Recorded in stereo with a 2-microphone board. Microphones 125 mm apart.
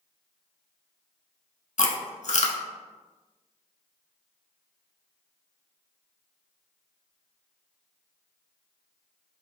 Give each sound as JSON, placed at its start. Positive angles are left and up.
{"t": 1.8, "sound": "chewing", "side_deg": 70, "distance_m": 0.6}